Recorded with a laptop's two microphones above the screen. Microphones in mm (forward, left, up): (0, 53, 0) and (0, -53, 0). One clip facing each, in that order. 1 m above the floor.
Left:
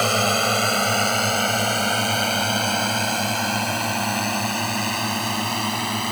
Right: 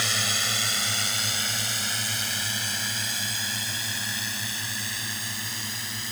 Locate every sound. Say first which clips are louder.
0.0 s a drone: left 12 dB; 55° left (ahead or behind); by 6.1 s 65° left (ahead or behind)